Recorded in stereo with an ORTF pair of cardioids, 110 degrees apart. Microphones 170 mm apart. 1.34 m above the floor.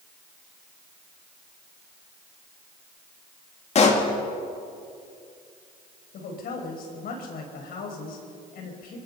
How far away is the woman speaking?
About 5.5 m.